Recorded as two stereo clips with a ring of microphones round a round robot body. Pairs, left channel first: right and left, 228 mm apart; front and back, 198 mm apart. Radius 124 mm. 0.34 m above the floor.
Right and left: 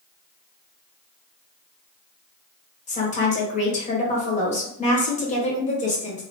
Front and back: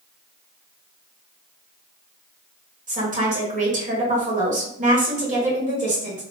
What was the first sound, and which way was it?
A woman speaking, 140° right.